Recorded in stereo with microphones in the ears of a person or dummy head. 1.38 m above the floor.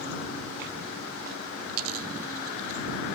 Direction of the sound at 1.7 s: 85° right.